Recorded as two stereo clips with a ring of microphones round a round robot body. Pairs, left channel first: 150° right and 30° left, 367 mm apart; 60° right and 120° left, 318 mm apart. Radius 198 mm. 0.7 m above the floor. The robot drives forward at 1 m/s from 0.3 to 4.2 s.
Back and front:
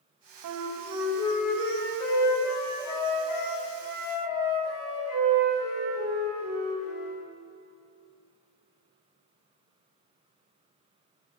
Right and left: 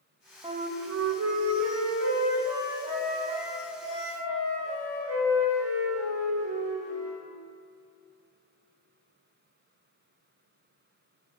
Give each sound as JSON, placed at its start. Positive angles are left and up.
{"t": 0.4, "sound": "a flute", "azimuth_deg": 45, "distance_m": 0.8}